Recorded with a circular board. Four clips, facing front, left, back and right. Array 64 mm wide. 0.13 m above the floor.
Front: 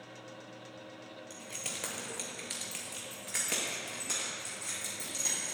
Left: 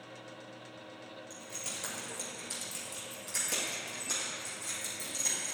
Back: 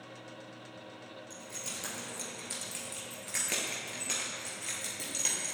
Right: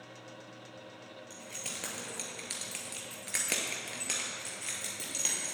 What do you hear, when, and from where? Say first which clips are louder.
1.3 s keys jangling: even, front 2 dB; 35° right, 1.8 m; by 5.5 s 130° right, 2 m